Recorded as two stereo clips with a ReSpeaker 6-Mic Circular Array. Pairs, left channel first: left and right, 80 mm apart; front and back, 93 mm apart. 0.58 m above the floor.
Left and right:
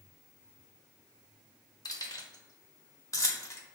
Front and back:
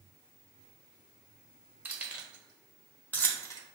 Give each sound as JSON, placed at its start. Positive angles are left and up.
{"t": 1.9, "sound": "keys jangling", "azimuth_deg": 110, "distance_m": 1.2}